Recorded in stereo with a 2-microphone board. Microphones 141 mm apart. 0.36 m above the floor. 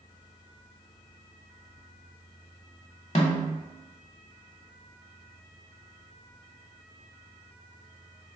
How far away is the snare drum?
About 0.9 m.